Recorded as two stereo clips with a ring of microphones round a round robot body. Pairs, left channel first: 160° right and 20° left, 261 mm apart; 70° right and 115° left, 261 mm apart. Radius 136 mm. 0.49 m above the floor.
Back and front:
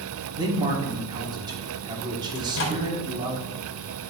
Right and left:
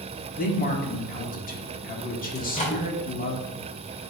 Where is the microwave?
130° right, 1.9 m.